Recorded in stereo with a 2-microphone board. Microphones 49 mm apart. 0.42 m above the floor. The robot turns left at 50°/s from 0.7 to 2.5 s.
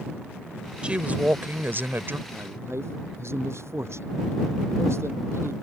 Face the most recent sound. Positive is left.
turn(degrees=-65)  # may be behind; listen again after turning